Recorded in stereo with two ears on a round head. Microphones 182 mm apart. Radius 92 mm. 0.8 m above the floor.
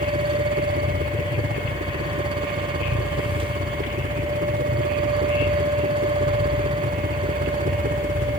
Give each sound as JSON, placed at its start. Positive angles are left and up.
{"t": 0.0, "sound": "a helicopter", "side_deg": -45}